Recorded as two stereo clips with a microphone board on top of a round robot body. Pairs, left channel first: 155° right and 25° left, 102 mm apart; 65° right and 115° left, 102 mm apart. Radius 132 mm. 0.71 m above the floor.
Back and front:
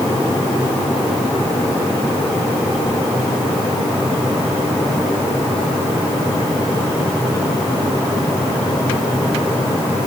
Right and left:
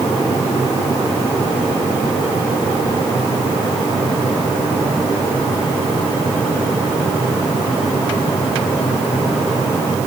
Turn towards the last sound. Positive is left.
No sound to turn to.